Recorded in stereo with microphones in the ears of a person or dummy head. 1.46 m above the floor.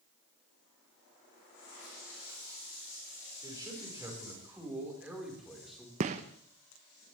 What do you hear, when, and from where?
3.4 s a man speaking: 20° right (ahead or behind), 5 m; by 5.9 s centre (ahead or behind), 4 m
6.0 s a gunshot: 30° right (ahead or behind), 0.8 m